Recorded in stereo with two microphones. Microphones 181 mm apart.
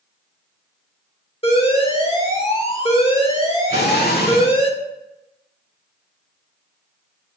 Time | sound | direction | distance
1.4 | an alarm | 35° left (ahead or behind) | 1.7 m
3.7 | an explosion | 65° left (ahead or behind) | 1.3 m